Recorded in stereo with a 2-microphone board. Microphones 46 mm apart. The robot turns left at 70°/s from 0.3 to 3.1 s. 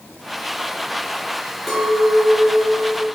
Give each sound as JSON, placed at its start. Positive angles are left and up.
{"t": 1.7, "sound": "a clink", "azimuth_deg": 0, "distance_m": 3.5}